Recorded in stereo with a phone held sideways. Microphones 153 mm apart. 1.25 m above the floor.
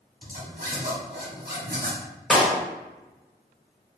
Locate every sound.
0.2 s a zipper: 70° right (ahead or behind), 1.6 m
2.3 s a clap: centre (ahead or behind), 1.2 m